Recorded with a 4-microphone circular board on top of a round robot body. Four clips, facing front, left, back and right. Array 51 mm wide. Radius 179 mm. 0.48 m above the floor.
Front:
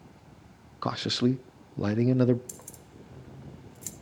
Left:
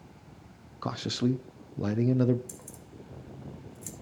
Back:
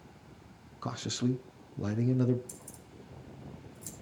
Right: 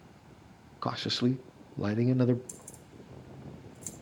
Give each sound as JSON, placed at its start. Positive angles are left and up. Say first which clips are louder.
{"t": 0.8, "sound": "a man speaking", "louder": "even, front 6 dB", "azimuth_deg": -30, "distance_m": 0.9}
{"t": 2.5, "sound": "keys jangling", "louder": "left 2 dB, front 2 dB", "azimuth_deg": 5, "distance_m": 2.0}